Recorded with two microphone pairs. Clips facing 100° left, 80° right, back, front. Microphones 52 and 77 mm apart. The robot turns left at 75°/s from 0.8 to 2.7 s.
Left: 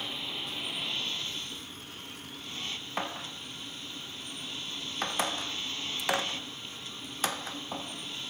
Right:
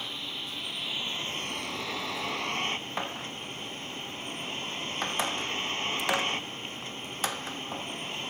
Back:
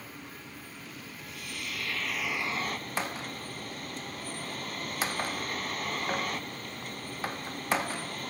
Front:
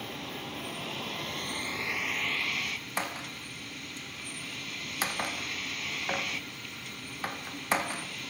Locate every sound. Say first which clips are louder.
0.0 s a vehicle: even, front 6 dB; 10° left; by 8.3 s 130° right